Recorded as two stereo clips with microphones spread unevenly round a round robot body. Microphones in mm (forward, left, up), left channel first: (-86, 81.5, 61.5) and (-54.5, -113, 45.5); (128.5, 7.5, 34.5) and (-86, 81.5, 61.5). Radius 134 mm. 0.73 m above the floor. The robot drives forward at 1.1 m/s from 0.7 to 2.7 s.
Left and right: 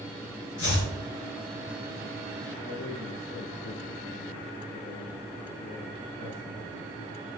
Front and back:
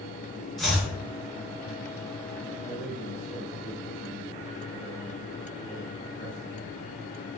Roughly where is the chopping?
Left.